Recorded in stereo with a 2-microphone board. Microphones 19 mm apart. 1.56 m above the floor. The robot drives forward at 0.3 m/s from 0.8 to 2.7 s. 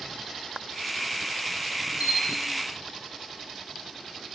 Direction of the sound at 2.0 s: 80° right.